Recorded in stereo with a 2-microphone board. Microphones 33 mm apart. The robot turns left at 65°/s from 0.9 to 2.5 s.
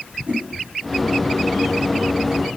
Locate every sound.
0.3 s a whoosh: 65° right (ahead or behind), 1.7 m